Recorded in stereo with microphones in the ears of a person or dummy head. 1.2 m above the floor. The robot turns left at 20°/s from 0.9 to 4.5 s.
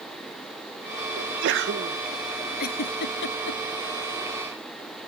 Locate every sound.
1.2 s a sneeze: 65° right (ahead or behind); by 2.0 s 55° right (ahead or behind)
2.6 s a giggle: 50° left (ahead or behind); by 3.6 s 70° left (ahead or behind)